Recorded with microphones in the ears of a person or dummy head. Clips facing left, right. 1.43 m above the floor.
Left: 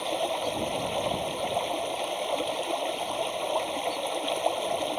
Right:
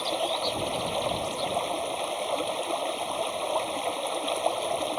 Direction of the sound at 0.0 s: 5° left (ahead or behind).